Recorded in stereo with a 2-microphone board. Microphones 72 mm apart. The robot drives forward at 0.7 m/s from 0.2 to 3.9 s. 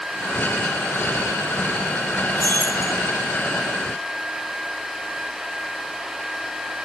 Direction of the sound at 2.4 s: 60° right (ahead or behind).